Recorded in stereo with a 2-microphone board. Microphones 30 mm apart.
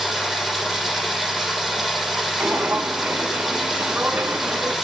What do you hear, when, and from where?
0.0 s running water: centre (ahead or behind), 7.5 m
2.4 s footsteps: 80° right, 2 m; by 4.8 s 85° right, 3.5 m